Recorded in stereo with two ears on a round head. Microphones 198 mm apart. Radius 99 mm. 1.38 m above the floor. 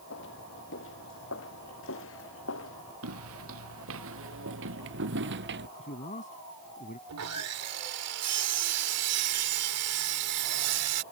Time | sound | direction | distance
0.1 | footsteps | 55° left (ahead or behind) | ?
3.0 | footsteps | 75° right (ahead or behind) | ?
5.8 | a man speaking | 35° left (ahead or behind) | ?
7.1 | sawing | 85° right | ?